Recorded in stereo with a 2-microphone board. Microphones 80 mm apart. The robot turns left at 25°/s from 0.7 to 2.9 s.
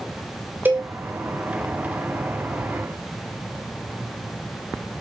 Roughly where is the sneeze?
No sneeze in this recording.